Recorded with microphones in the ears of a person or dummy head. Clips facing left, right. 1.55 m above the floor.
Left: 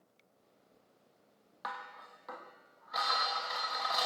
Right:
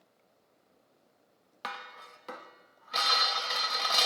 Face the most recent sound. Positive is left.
turn(degrees=-45)  # may be behind; listen again after turning